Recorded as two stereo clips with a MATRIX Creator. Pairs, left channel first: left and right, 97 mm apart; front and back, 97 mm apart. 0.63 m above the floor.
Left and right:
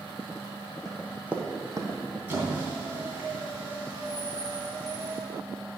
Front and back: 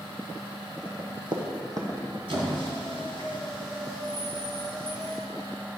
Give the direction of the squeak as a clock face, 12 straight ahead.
5 o'clock.